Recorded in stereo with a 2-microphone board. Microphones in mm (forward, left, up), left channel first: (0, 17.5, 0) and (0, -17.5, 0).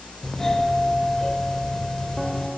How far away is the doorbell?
About 2 m.